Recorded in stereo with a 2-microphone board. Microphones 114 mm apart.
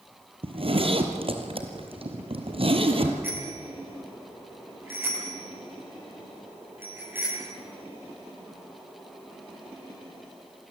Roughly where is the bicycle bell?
Centre.